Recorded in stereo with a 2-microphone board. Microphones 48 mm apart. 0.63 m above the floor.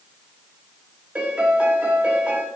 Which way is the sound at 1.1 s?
25° right (ahead or behind).